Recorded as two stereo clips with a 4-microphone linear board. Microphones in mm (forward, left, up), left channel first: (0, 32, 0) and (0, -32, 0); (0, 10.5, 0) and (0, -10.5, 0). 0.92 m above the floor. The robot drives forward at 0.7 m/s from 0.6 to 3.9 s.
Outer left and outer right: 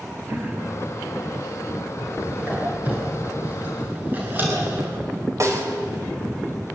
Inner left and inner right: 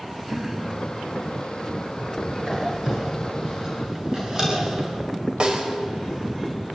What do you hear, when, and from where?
0.3 s throat clearing: 30° right (ahead or behind), 8 m
2.4 s a squeak: 25° right (ahead or behind), 9.5 m; by 5.0 s 30° right (ahead or behind), 8.5 m
5.4 s a snare drum: 50° right (ahead or behind), 4.5 m